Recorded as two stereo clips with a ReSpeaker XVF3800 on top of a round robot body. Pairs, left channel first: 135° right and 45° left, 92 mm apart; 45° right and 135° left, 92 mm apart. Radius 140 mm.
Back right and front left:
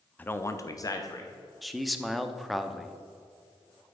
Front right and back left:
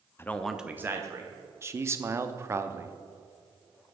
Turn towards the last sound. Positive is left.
turn(degrees=135)